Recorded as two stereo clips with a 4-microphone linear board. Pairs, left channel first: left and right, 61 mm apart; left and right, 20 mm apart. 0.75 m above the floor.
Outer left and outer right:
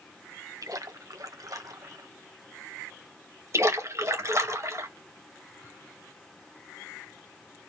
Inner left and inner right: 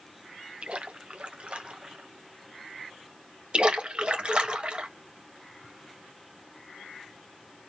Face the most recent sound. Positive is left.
turn(degrees=-55)  # may be behind; listen again after turning